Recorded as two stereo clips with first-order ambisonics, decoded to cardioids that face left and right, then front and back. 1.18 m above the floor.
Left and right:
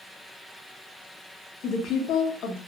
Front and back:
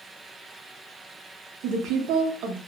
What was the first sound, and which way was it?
A woman speaking, 140° left.